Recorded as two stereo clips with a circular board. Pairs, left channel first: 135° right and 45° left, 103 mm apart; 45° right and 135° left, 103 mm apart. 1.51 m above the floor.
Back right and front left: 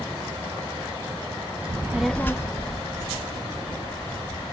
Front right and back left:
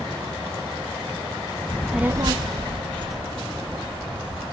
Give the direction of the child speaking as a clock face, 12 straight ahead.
12 o'clock.